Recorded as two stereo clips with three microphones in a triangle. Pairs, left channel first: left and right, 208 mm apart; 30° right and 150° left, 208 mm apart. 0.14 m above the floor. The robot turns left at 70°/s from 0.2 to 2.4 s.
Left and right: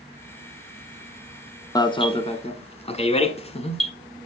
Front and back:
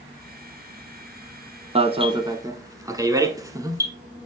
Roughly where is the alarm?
Behind left.